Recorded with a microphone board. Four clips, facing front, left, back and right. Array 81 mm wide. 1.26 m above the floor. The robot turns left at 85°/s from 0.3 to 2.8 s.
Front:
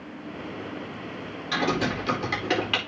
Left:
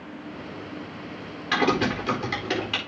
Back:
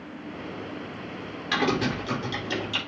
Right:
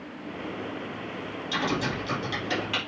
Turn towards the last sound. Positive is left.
turn(degrees=-5)